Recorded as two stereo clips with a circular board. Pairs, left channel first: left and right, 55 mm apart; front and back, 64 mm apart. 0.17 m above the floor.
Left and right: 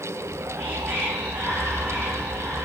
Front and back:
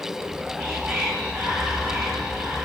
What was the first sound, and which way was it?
Whispering, 135° right.